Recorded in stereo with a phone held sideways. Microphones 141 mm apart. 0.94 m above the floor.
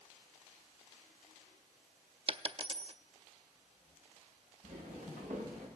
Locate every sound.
2.3 s a dropped coin: 40° right (ahead or behind), 0.5 m
4.6 s footsteps: 60° right (ahead or behind), 7.5 m; by 5.7 s 55° right (ahead or behind), 8.5 m